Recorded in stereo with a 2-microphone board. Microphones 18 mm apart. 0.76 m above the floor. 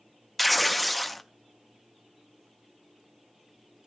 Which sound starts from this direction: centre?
Tearing paper, at 0.4 s.